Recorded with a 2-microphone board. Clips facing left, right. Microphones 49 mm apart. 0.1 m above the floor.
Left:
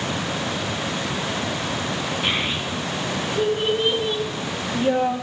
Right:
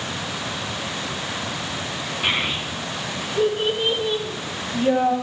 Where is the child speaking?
15° right (ahead or behind), 7.5 m; by 5.1 s 10° left (ahead or behind), 4.5 m.